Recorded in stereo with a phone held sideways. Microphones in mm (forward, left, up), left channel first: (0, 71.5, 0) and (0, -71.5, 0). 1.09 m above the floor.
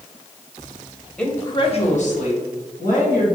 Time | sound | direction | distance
1.2 | a woman speaking | 5° left (ahead or behind) | 0.9 m